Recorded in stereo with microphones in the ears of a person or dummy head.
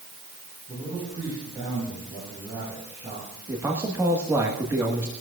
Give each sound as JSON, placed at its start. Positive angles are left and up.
{"t": 0.7, "sound": "a man speaking", "side_deg": -30, "distance_m": 9.5}
{"t": 3.5, "sound": "a man speaking", "side_deg": -15, "distance_m": 1.4}